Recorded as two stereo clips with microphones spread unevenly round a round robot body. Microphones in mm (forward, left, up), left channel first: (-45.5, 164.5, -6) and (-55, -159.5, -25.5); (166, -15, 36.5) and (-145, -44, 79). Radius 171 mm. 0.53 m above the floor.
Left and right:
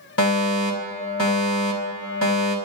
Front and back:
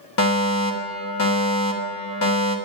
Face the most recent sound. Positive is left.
turn(degrees=40)